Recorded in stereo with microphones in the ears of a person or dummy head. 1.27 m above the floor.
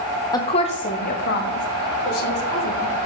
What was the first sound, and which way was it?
A woman speaking, 20° left (ahead or behind).